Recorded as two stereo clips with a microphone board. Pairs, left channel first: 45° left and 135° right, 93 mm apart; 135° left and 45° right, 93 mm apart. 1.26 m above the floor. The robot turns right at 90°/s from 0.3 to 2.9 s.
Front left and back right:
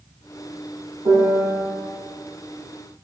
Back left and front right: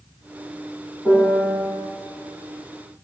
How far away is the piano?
About 2 m.